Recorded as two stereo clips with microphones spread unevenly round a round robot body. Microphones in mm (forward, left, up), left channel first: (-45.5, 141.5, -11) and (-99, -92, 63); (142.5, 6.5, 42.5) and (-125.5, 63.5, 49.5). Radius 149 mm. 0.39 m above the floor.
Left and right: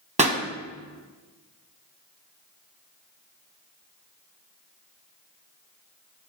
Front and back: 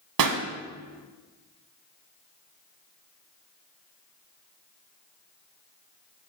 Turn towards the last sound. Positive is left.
turn(degrees=-170)